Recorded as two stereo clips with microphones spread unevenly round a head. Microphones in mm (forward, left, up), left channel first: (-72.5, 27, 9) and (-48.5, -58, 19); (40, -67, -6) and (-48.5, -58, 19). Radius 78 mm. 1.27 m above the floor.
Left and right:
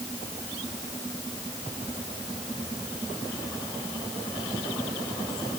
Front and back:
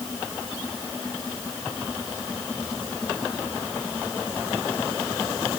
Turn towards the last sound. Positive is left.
No sound to turn to.